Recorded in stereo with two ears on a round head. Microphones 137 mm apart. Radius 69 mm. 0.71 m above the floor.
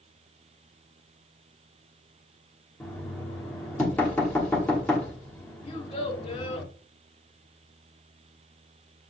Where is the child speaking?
35° left (ahead or behind), 1.0 m.